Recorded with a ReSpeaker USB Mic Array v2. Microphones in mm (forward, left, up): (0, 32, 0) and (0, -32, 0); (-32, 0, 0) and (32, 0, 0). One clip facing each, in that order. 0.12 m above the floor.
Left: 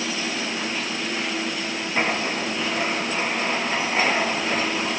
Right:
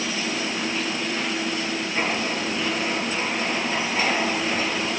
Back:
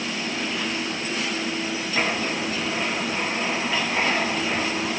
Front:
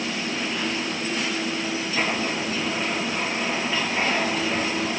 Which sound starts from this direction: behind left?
Writing, at 1.9 s.